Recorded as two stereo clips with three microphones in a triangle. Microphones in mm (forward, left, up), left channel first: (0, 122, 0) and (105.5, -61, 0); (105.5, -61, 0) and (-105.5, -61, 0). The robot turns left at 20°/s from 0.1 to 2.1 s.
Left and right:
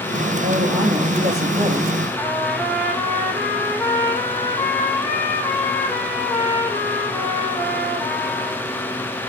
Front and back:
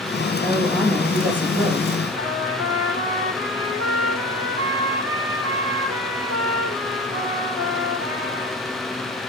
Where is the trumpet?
160° right, 9.5 m.